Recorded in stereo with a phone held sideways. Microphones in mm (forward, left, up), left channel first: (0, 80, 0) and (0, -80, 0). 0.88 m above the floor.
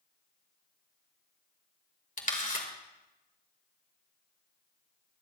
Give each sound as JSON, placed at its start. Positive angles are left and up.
{"t": 2.2, "sound": "a camera shutter", "side_deg": 55, "distance_m": 2.0}